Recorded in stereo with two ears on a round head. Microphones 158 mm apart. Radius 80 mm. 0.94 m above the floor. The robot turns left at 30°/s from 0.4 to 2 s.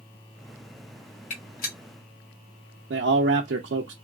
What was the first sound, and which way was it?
A gunshot, 45° left (ahead or behind).